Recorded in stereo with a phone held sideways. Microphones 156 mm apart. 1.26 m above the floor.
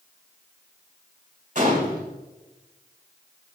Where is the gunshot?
55° right (ahead or behind), 1.5 m.